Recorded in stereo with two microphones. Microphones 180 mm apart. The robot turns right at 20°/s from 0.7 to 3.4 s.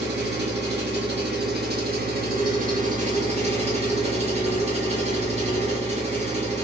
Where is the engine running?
95° right, 1.7 m; by 6.6 s 40° right, 1.7 m.